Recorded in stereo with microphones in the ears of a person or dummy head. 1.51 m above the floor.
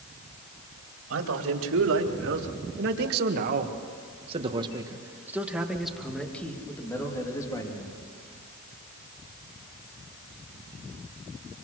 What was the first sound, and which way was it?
A man speaking, 90° right.